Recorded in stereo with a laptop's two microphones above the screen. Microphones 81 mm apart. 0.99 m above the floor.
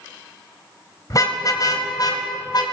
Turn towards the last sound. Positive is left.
turn(degrees=55)  # may be behind; listen again after turning